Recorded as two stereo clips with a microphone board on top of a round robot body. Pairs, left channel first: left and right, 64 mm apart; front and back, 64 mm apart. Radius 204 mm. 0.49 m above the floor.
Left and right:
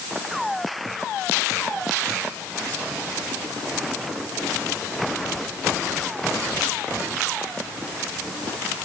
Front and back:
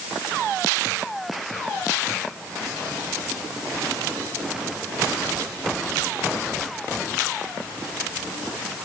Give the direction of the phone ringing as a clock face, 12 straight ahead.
I don't hear a phone ringing.